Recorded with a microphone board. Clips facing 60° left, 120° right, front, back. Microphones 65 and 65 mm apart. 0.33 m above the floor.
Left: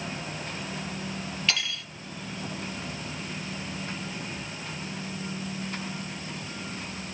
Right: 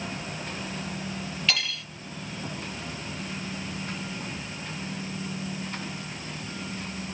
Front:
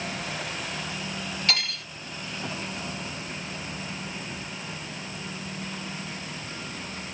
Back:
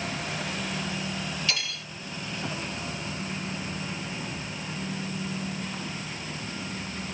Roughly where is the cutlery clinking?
Ahead right.